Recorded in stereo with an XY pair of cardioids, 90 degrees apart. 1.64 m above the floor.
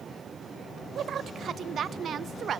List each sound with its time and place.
0.9 s a woman speaking: 60° right, 0.6 m